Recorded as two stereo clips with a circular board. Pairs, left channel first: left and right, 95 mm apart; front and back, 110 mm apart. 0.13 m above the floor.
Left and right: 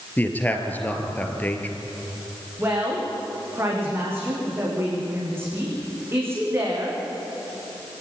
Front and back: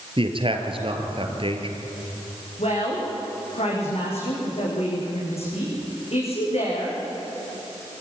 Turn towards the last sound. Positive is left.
turn(degrees=-25)